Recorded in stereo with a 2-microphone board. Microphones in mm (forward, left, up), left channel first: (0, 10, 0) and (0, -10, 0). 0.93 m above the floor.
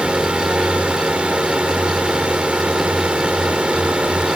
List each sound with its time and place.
0.0 s a drone: 70° right (ahead or behind)